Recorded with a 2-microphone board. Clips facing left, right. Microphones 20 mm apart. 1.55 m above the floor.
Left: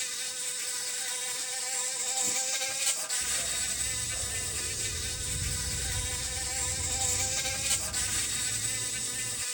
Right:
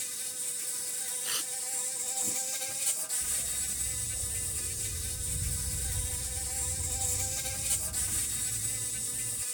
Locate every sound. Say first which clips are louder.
0.0 s an insect: left 5 dB; 30° left (ahead or behind)
1.2 s tearing paper: right 1 dB; 85° right
3.2 s a dog barking: left 4 dB; 75° left (ahead or behind)